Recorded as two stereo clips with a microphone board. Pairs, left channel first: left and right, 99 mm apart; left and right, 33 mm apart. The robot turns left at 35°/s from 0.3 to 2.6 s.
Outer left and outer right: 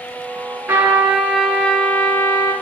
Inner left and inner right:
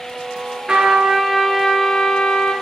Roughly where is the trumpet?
Behind right.